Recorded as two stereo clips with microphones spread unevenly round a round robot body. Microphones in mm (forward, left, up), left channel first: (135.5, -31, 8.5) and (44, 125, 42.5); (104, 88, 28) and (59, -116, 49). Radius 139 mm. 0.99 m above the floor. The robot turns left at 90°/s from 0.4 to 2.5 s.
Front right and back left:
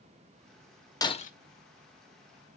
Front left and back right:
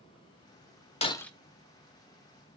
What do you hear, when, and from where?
1.0 s breaking glass: 15° left, 0.9 m; by 1.3 s 10° right, 0.9 m